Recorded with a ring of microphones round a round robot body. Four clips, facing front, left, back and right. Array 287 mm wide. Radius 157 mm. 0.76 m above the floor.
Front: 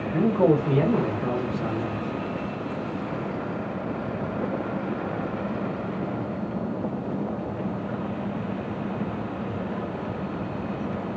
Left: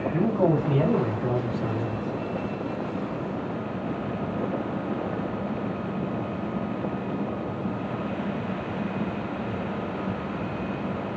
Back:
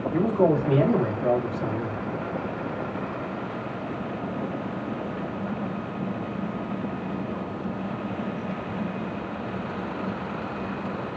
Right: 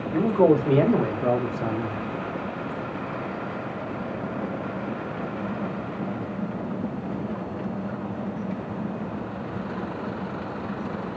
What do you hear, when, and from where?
0.1 s a man speaking: 95° right, 2.0 m; by 2.0 s 65° right, 1.0 m